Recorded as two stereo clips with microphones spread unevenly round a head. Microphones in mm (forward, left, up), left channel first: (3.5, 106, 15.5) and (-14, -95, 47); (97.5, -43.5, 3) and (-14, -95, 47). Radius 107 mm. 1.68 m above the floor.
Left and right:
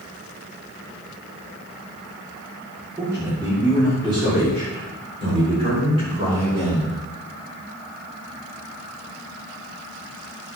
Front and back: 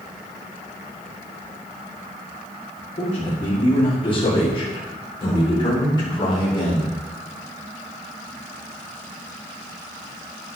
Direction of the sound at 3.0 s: 20° right.